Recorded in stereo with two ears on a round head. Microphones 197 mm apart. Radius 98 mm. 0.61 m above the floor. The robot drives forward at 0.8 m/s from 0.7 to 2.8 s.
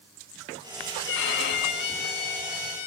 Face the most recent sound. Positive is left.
turn(degrees=45)  # may be behind; listen again after turning